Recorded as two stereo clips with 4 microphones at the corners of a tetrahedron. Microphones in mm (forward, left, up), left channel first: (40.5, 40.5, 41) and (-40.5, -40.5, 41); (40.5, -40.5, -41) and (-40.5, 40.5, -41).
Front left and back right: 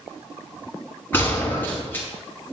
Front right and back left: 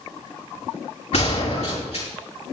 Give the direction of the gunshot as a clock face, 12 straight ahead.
1 o'clock.